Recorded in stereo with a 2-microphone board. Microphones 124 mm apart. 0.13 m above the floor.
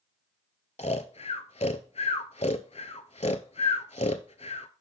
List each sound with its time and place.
0.8 s snoring: 65° left (ahead or behind), 0.6 m